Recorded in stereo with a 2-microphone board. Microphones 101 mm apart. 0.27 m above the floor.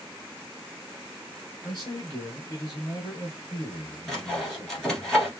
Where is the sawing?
5° left (ahead or behind), 1.8 m.